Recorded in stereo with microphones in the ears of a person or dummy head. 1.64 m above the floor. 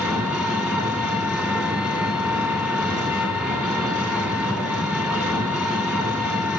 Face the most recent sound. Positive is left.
turn(degrees=-5)  # may be behind; listen again after turning